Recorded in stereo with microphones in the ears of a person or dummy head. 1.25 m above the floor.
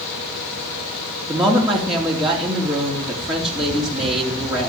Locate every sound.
1.3 s a woman speaking: centre (ahead or behind), 3.5 m